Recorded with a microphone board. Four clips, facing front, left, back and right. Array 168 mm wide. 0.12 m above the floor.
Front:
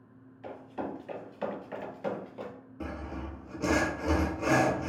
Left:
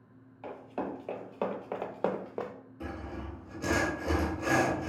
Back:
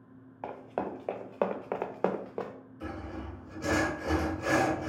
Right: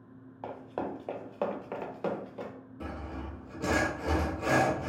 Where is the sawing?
20° right, 0.7 m.